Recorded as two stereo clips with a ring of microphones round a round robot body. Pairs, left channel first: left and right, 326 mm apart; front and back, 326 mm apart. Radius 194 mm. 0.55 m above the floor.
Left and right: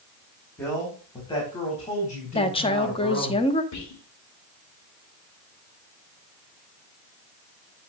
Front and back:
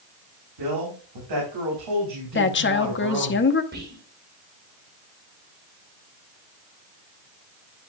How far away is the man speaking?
About 4 m.